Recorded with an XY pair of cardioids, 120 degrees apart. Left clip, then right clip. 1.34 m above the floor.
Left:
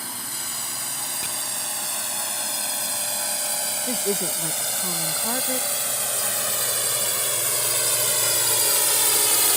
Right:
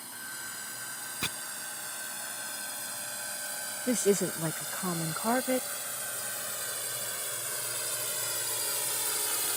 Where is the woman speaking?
15° right.